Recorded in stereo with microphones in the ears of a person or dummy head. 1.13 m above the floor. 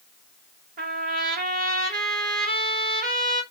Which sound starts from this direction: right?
A trumpet, at 0.8 s.